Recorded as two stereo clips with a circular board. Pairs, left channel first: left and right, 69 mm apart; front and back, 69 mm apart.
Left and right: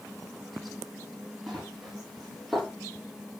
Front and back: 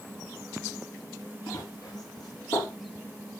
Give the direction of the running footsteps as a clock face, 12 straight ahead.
12 o'clock.